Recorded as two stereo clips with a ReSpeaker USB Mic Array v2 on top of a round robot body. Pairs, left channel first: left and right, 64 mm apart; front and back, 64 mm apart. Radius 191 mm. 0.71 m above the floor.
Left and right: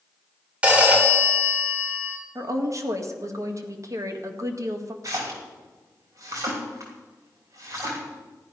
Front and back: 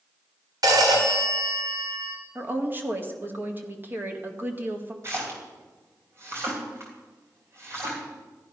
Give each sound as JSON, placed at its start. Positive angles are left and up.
{"t": 0.6, "sound": "a phone ringing", "azimuth_deg": -160, "distance_m": 2.5}
{"t": 2.4, "sound": "a woman speaking", "azimuth_deg": -125, "distance_m": 1.9}
{"t": 5.0, "sound": "a splash", "azimuth_deg": -130, "distance_m": 3.0}